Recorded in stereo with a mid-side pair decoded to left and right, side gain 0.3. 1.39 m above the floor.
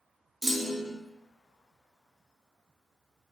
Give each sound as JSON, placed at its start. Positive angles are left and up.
{"t": 0.4, "sound": "a clunk", "azimuth_deg": -10, "distance_m": 0.5}